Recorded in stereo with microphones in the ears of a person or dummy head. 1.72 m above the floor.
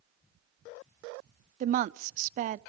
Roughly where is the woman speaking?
Right.